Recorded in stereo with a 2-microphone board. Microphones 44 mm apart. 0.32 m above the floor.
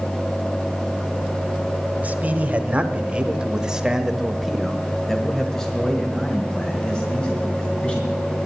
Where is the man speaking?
35° right (ahead or behind), 1.4 m; by 8.2 s 30° left (ahead or behind), 2.5 m.